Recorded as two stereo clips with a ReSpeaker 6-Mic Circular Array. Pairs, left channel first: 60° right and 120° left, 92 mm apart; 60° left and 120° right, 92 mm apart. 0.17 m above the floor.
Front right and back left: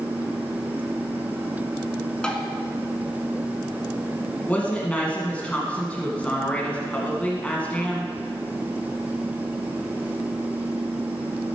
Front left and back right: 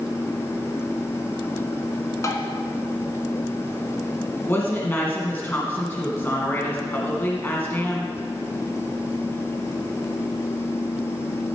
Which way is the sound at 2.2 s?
20° left.